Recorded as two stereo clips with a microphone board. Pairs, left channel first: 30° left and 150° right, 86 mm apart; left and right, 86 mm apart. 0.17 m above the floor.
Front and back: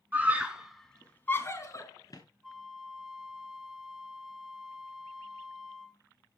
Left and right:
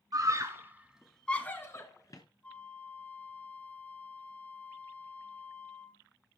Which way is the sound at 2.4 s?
130° left.